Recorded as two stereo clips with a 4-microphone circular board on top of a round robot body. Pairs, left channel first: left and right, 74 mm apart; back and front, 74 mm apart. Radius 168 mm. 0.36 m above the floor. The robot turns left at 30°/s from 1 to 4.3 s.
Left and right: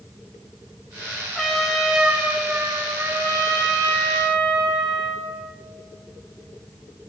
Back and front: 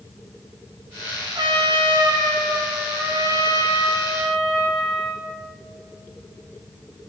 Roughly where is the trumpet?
Ahead.